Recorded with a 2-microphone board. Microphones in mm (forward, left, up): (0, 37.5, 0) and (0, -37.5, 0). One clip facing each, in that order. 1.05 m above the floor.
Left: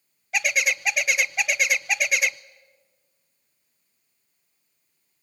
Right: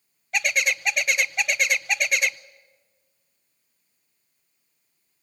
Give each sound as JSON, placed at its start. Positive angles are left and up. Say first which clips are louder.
{"t": 0.3, "sound": "a bird", "louder": "even", "side_deg": 5, "distance_m": 0.5}